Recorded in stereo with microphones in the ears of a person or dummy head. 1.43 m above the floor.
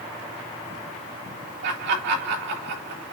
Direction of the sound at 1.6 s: 60° right (ahead or behind).